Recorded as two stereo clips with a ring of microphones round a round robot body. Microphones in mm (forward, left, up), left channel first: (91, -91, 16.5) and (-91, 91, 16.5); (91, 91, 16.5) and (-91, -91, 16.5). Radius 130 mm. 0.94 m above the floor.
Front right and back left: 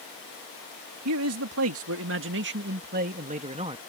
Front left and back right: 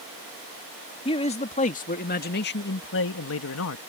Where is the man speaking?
115° left; by 3.8 s 65° left.